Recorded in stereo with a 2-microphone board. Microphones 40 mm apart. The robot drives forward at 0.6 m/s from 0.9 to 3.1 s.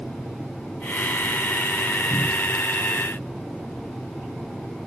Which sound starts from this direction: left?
A cupboard door, at 2.1 s.